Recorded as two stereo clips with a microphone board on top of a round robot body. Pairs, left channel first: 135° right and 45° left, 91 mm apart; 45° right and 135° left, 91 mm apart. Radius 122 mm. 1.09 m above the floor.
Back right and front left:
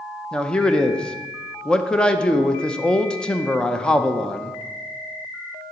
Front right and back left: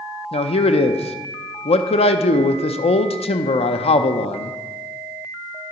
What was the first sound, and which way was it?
A man speaking, 55° right.